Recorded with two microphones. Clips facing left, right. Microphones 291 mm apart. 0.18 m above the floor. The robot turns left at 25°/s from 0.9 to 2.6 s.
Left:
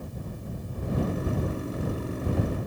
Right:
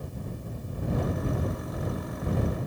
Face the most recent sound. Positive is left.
No sound to turn to.